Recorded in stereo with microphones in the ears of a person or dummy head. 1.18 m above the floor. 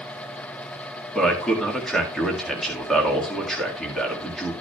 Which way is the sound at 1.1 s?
Centre (ahead or behind).